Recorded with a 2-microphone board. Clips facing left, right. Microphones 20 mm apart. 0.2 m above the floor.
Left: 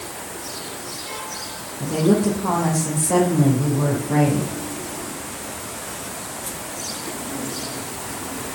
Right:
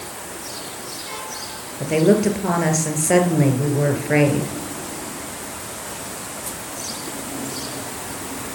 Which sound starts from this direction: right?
A woman speaking, at 1.8 s.